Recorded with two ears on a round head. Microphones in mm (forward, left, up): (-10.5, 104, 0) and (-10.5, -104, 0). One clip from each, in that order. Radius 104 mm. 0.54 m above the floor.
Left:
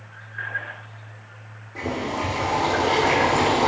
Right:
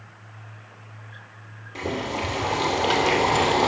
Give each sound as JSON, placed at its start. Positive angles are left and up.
{"t": 1.8, "sound": "boiling", "side_deg": -80, "distance_m": 2.5}